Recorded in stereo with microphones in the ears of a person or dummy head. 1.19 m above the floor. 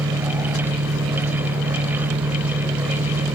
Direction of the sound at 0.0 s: 30° right (ahead or behind).